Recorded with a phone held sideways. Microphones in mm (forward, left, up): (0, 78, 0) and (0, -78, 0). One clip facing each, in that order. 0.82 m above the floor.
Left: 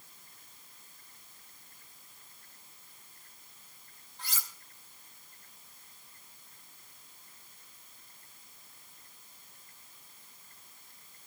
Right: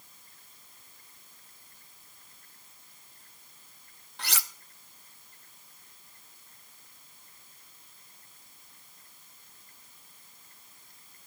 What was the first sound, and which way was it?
Cutlery clinking, 80° right.